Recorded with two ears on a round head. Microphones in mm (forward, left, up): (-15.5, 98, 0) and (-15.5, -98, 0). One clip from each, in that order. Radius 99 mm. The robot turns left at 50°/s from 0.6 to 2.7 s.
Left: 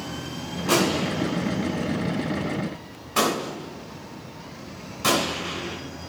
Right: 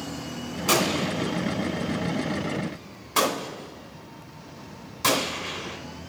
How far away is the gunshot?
About 2.5 m.